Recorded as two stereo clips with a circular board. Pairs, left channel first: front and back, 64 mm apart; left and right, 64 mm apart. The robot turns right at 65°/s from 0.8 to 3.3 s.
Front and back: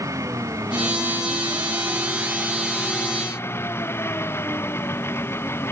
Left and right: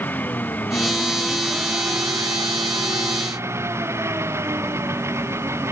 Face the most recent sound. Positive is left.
turn(degrees=-45)